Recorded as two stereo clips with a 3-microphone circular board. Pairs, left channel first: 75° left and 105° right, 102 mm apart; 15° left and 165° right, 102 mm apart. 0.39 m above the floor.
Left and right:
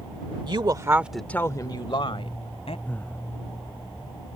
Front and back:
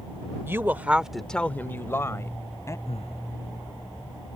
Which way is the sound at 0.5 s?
105° right.